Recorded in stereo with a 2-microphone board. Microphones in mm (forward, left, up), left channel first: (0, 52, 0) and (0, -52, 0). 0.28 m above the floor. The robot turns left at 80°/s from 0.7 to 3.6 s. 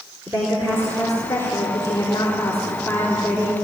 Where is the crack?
I don't hear a crack.